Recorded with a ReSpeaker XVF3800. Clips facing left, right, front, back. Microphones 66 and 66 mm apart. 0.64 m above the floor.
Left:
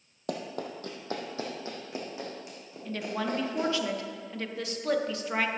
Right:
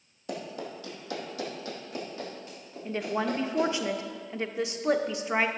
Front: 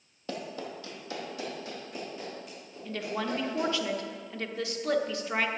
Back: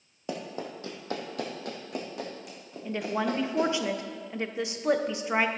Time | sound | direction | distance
0.3 | running footsteps | 110° left | 1.4 m
2.9 | a woman speaking | 130° right | 0.6 m